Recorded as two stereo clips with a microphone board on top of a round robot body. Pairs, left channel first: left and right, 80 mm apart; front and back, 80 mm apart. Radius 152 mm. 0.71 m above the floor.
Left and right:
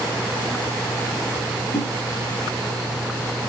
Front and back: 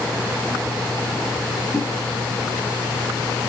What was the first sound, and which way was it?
A whoosh, 100° left.